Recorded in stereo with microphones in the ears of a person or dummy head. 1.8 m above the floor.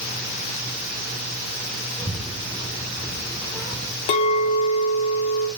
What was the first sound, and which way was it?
A child speaking, 5° left (ahead or behind).